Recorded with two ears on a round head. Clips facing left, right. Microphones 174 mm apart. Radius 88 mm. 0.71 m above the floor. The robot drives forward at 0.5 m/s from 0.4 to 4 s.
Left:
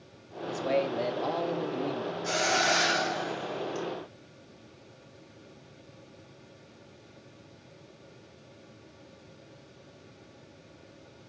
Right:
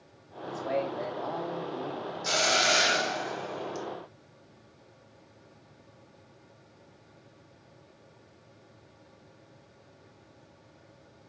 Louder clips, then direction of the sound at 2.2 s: Even; 50° right (ahead or behind).